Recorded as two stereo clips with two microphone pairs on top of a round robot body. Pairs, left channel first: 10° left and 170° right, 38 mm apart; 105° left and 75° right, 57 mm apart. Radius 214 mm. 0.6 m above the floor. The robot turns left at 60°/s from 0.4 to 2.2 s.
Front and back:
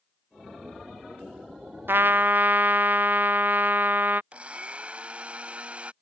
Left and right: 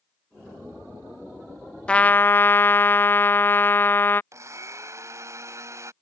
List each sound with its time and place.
1.9 s a trumpet: 175° left; by 4.2 s 155° left
4.3 s a blender: 110° right